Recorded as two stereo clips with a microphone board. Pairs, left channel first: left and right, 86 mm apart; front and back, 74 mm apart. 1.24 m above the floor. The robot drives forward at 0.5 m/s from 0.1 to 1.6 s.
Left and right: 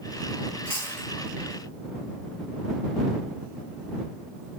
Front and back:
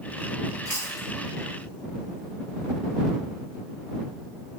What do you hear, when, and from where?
0.7 s chewing: 160° left, 1.3 m